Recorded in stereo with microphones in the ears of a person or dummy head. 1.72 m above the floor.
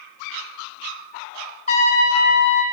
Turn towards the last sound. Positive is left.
turn(degrees=45)  # may be behind; listen again after turning